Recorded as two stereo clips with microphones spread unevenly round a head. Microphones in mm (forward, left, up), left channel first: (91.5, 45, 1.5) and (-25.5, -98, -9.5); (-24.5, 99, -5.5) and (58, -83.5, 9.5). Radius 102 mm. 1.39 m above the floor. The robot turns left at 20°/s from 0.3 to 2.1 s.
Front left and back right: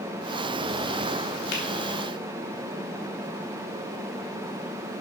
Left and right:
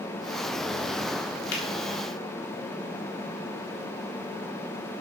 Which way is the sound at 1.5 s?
95° left.